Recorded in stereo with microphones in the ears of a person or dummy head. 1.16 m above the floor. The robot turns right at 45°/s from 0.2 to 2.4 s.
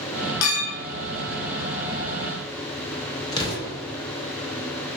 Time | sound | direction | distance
0.4 | a clink | 70° left (ahead or behind) | 0.6 m
3.3 | an explosion | 20° left (ahead or behind) | 0.6 m